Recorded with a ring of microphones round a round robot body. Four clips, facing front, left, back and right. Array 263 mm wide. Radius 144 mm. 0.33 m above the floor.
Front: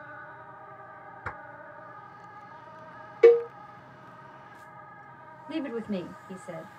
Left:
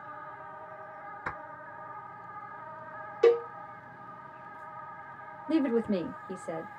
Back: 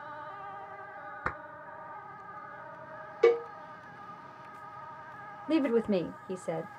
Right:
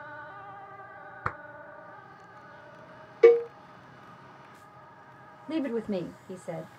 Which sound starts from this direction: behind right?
A clap, at 1.2 s.